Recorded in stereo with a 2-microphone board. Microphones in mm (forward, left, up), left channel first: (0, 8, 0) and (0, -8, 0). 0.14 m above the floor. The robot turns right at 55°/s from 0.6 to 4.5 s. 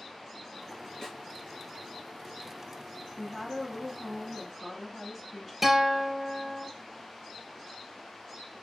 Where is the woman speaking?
10° left (ahead or behind), 1.8 m; by 5.5 s 25° right (ahead or behind), 1.8 m.